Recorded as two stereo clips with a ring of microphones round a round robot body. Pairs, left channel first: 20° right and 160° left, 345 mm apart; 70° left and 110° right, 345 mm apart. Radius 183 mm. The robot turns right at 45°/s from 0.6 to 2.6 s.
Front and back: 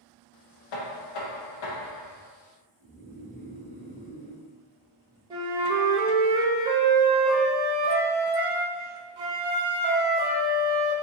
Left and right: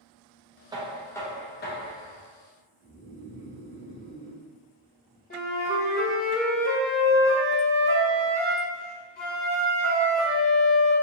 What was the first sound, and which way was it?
Knocking, 35° right.